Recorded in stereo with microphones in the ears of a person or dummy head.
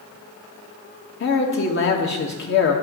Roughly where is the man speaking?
Left.